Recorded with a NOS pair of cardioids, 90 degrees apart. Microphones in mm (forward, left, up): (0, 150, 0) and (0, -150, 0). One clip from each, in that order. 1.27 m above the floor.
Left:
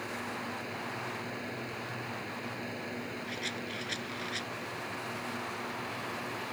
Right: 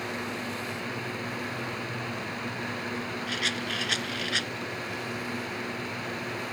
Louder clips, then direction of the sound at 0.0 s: Right 4 dB; 45° right.